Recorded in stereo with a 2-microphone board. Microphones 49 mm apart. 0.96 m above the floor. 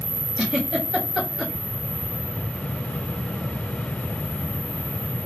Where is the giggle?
10° right (ahead or behind), 1.1 m.